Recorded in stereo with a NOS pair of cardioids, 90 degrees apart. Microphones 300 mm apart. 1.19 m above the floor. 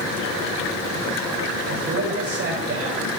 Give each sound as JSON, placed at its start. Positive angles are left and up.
{"t": 1.7, "sound": "a man speaking", "azimuth_deg": -50, "distance_m": 8.0}